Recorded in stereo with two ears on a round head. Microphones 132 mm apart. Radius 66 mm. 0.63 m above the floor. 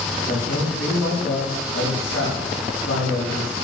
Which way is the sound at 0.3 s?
80° left.